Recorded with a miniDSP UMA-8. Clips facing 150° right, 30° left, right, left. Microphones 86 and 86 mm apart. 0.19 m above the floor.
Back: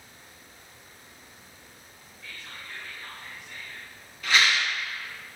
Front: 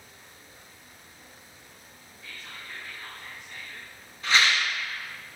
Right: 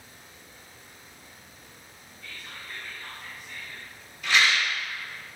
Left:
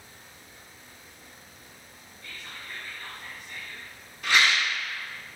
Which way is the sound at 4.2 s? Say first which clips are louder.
Even, even; 80° left.